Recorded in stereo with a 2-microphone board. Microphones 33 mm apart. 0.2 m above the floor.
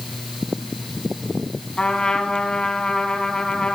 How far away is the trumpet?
About 1.3 m.